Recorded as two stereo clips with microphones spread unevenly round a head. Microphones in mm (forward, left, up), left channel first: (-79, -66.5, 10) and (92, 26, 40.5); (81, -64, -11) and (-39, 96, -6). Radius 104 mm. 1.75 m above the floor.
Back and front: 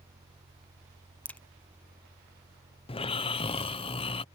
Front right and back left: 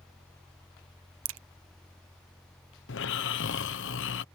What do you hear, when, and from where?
1.2 s a crack: 120° left
2.9 s snoring: 85° right